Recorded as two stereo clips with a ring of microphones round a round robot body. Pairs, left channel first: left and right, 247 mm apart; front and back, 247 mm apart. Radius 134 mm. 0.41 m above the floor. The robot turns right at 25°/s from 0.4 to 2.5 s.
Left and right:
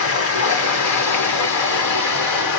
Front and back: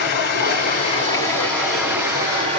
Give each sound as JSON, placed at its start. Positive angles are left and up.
{"t": 0.0, "sound": "running water", "azimuth_deg": 55, "distance_m": 1.3}